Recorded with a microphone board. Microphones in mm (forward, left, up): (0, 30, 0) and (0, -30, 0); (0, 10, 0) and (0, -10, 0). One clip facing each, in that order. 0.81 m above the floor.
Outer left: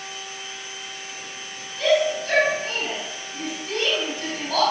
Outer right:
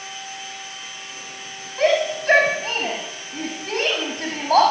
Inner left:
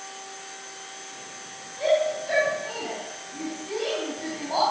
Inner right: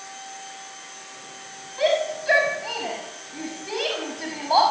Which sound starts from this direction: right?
A shout, at 1.8 s.